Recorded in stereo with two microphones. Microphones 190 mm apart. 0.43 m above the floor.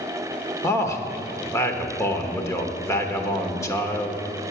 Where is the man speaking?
15° left (ahead or behind), 1.0 m.